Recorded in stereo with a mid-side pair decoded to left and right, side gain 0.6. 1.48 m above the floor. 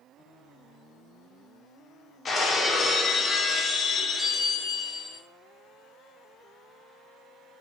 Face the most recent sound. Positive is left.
turn(degrees=35)